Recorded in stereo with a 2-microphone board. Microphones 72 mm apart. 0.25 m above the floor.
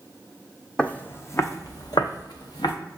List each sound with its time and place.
0.8 s footsteps: 15° left (ahead or behind), 0.5 m; by 2.7 s 80° left, 1.0 m